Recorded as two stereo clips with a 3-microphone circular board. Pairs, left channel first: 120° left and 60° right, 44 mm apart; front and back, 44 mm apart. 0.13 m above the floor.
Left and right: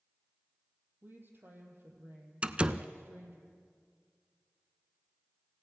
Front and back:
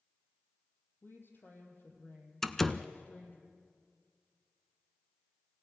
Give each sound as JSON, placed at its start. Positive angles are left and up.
{"t": 1.0, "sound": "a woman speaking", "azimuth_deg": -25, "distance_m": 4.5}
{"t": 2.4, "sound": "a door slam", "azimuth_deg": -70, "distance_m": 0.8}